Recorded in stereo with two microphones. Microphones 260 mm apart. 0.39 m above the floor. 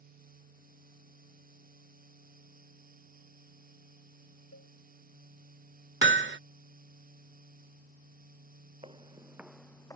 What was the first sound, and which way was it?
A cowbell, 75° left (ahead or behind).